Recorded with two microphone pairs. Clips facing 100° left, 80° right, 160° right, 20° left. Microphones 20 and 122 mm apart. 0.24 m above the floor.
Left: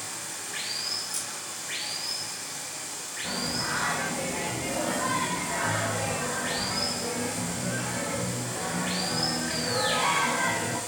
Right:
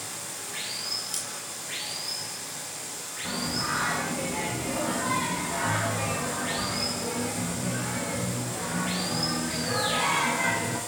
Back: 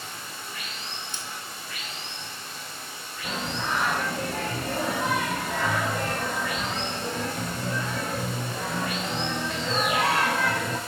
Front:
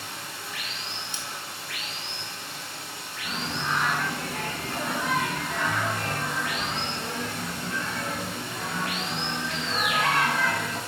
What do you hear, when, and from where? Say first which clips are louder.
0.0 s running water: left 1 dB, front 1 dB; 20° left, 1.5 m
1.1 s scissors: even, even; 115° right, 0.9 m
3.2 s singing: right 1 dB, back 1 dB; 170° right, 2.5 m